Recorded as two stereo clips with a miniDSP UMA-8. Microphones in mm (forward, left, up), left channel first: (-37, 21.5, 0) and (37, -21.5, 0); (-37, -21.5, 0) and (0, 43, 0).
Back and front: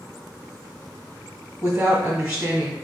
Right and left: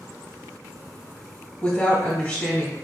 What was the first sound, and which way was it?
A woman speaking, 70° right.